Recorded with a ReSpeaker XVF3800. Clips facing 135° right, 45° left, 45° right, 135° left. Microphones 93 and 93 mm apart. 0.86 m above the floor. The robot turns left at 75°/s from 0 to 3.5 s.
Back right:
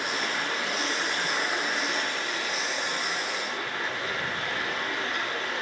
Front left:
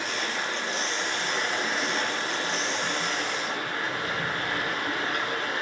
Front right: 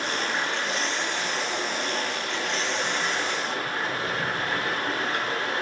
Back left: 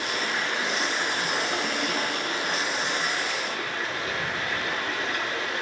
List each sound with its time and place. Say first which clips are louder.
0.0 s running water: back right 1 dB, front right 1 dB; 95° right, 4.5 m; by 5.6 s straight ahead, 4.5 m